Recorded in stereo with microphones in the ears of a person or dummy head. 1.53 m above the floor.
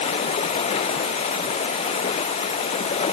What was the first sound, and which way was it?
Running water, 35° left (ahead or behind).